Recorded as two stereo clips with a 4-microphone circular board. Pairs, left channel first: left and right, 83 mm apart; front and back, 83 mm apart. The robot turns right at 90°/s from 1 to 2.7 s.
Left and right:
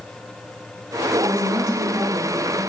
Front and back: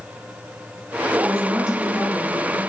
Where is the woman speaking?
140° right, 2 m; by 2.6 s 15° right, 2 m.